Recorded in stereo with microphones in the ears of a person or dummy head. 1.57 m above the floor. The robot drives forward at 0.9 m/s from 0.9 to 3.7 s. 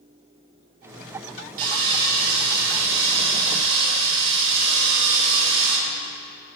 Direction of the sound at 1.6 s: 55° right (ahead or behind).